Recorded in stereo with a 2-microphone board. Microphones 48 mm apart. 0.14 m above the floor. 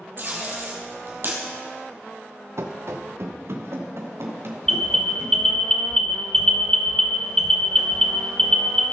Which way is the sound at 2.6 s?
70° right (ahead or behind).